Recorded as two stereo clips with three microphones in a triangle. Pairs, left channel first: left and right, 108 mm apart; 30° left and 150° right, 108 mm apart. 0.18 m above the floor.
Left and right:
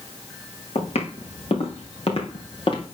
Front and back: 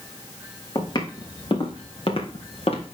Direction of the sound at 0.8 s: 80° left.